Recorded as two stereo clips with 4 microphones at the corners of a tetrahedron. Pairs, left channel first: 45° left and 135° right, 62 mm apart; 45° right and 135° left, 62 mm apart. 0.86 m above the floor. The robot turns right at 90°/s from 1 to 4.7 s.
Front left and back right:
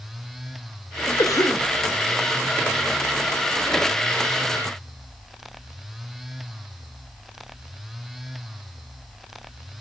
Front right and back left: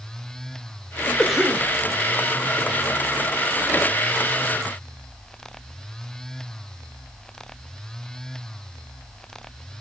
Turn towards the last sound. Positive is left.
turn(degrees=0)